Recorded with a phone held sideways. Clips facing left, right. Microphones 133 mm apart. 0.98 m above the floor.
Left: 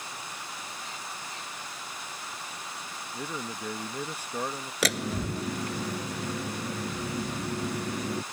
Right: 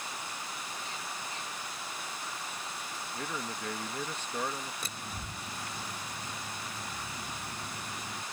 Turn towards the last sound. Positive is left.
turn(degrees=85)